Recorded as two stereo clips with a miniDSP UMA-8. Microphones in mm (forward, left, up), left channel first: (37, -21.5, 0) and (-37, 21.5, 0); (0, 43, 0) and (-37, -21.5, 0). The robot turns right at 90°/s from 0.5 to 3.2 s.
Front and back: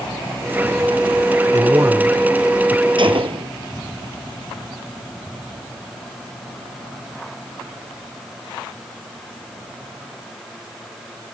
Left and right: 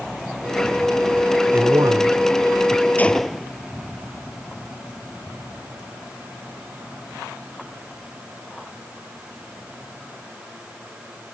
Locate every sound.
1.5 s a man speaking: 175° left; by 2.9 s 60° right
3.0 s a gunshot: 125° left; by 3.5 s 145° left